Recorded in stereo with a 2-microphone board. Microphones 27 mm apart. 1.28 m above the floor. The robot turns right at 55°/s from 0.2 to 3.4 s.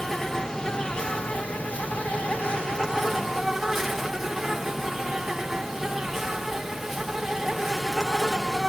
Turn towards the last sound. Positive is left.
turn(degrees=180)